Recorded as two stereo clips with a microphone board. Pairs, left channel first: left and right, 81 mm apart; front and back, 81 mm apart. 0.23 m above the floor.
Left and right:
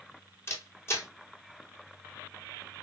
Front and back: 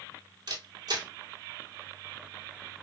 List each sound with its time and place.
0.5 s a camera shutter: 145° left, 1.6 m